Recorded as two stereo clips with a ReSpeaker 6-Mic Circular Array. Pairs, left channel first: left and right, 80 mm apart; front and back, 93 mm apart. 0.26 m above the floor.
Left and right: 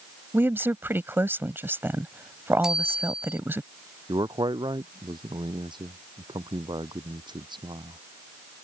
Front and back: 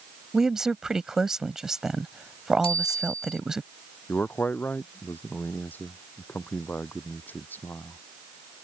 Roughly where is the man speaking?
Right.